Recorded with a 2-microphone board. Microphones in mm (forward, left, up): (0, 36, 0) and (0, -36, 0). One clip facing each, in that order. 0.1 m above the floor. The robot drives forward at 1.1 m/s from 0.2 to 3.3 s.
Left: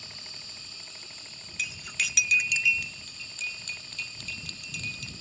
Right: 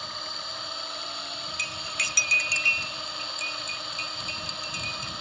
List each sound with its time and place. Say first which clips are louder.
0.0 s a drone: right 12 dB; 60° right (ahead or behind); by 5.2 s 65° right (ahead or behind)
1.6 s cutlery clinking: even; centre (ahead or behind)